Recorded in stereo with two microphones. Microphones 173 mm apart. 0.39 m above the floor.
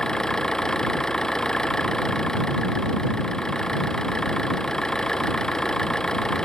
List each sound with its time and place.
0.0 s an engine running: 5° left (ahead or behind)